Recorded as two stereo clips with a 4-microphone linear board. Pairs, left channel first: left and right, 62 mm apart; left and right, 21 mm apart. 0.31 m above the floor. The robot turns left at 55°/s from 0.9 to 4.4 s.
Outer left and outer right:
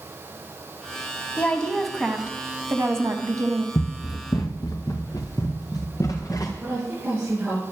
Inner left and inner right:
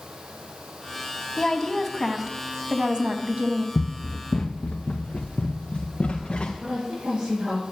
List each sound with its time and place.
1.4 s a woman speaking: 30° left, 2 m; by 3.6 s 95° right, 2 m
3.8 s running footsteps: 75° left (ahead or behind), 1.0 m; by 6.5 s 65° left (ahead or behind), 3 m
6.6 s a woman speaking: 20° right (ahead or behind), 9.5 m